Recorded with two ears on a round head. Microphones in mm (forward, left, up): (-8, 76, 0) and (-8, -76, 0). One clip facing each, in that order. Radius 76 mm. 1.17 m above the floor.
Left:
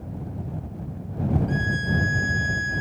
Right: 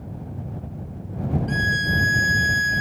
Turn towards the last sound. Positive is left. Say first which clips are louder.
# even
turn(degrees=-70)  # may be behind; listen again after turning